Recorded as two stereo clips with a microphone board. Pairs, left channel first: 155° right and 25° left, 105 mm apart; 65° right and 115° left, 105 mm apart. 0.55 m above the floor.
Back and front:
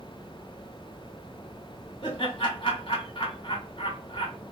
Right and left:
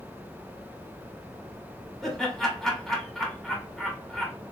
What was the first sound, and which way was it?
Laughter, 155° right.